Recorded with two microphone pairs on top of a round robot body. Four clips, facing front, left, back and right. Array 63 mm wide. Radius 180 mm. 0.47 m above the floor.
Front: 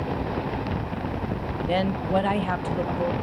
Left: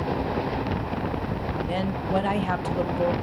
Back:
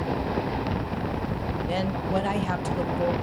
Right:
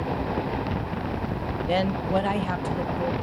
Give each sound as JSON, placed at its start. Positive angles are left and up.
{"t": 1.7, "sound": "a woman speaking", "azimuth_deg": -50, "distance_m": 1.0}